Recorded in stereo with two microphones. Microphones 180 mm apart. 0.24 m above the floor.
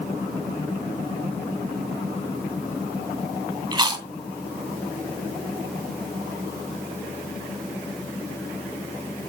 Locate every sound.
3.7 s chewing: 25° right (ahead or behind), 1.6 m